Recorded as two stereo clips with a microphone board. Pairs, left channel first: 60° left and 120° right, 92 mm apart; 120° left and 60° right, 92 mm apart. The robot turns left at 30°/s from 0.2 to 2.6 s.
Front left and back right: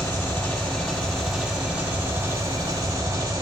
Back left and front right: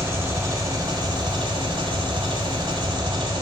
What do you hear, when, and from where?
0.0 s an engine running: straight ahead, 1.7 m; by 3.4 s 70° right, 1.7 m